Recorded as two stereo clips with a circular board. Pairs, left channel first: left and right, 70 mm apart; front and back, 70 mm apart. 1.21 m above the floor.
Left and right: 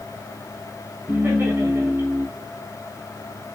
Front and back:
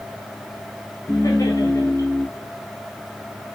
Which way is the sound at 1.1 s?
35° right.